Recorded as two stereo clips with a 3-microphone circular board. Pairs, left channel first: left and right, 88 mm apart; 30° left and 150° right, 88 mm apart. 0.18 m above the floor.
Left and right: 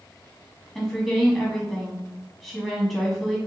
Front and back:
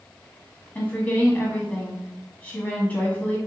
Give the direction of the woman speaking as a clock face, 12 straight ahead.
12 o'clock.